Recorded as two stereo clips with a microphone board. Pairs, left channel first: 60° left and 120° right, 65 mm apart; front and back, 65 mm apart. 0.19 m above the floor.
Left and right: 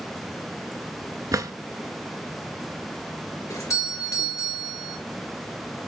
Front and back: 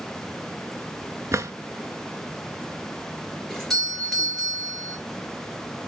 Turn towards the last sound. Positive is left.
turn(degrees=85)